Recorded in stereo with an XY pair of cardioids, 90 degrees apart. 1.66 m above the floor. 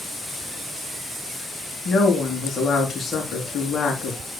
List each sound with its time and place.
1.9 s a woman speaking: 50° left, 4 m